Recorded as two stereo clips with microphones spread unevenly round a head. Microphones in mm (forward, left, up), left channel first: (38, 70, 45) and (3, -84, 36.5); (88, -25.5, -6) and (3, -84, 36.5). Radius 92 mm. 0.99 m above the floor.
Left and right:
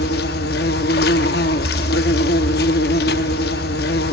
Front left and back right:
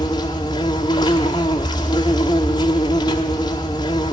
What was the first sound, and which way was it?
An insect, 110° left.